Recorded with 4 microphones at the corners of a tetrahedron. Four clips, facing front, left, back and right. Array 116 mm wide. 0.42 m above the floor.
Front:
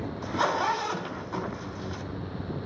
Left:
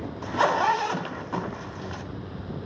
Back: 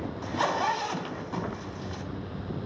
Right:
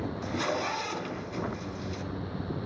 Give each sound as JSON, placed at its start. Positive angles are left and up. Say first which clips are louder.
{"t": 0.2, "sound": "a zipper", "louder": "left 11 dB, front 1 dB", "azimuth_deg": 90, "distance_m": 1.0}